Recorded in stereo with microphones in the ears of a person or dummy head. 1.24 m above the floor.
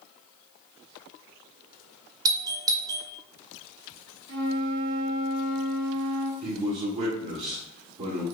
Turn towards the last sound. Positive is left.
turn(degrees=-35)  # may be behind; listen again after turning